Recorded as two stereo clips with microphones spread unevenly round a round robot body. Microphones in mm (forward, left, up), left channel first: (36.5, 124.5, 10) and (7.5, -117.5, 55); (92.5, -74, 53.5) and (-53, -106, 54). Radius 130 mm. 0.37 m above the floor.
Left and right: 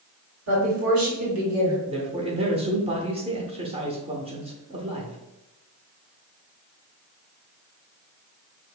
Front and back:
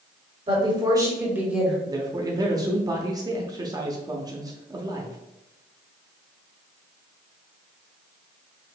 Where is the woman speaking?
125° right, 2 m; by 1.8 s 75° right, 2 m.